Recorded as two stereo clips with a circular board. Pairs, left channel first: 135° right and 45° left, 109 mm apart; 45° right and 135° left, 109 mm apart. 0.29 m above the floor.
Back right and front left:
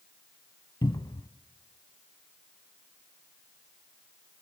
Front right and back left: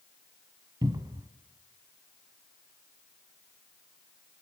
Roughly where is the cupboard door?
Behind.